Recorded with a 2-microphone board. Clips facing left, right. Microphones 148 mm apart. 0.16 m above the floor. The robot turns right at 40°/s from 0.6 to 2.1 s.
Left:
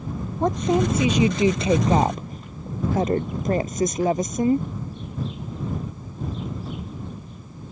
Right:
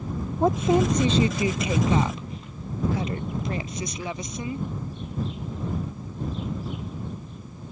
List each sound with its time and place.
0.4 s a woman speaking: 5° right; by 4.7 s 55° left